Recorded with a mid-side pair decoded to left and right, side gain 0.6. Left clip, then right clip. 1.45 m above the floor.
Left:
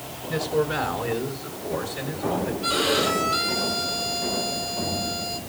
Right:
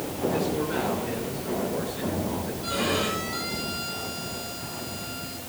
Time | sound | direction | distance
0.3 | a man speaking | 60° left | 6 m
2.6 | a violin | 50° left | 7 m